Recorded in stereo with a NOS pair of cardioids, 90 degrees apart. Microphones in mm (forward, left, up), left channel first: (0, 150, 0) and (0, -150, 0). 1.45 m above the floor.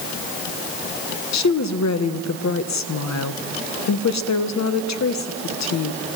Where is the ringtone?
I don't hear a ringtone.